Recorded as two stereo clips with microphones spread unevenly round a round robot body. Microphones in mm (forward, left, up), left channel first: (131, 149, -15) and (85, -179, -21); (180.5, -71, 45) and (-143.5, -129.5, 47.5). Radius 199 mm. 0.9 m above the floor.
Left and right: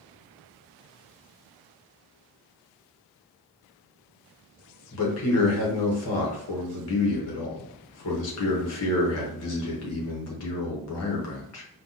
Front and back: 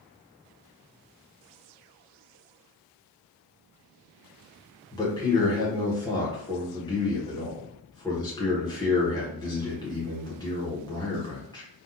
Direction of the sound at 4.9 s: 80° left.